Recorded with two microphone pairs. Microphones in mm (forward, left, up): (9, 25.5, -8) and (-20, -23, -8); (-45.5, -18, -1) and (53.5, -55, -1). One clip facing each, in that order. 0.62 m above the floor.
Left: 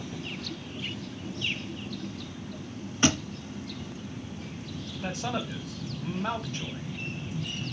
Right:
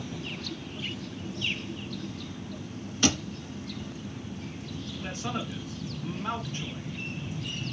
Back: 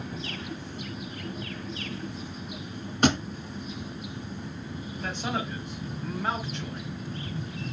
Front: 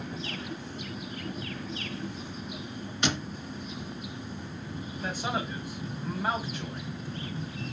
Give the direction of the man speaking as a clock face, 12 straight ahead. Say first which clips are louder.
Left 2 dB, even; 10 o'clock.